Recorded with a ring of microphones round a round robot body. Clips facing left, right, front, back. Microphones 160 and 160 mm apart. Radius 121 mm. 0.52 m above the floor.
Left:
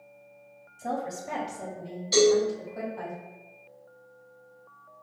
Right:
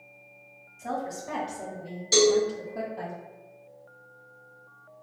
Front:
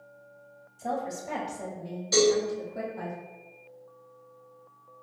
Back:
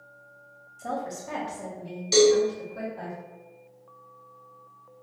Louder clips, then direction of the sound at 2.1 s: Left 1 dB, back 4 dB; 110° right.